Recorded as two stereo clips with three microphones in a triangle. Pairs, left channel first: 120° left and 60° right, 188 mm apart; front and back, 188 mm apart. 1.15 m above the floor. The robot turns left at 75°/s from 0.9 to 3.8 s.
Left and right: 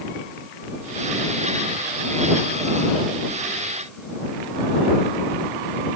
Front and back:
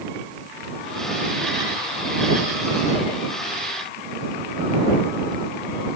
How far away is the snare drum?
I don't hear a snare drum.